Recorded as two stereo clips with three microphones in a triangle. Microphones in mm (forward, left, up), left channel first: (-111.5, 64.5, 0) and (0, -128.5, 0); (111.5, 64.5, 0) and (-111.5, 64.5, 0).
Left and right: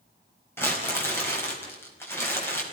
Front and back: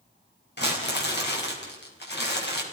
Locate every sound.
0.6 s crumpling: 40° left, 4.5 m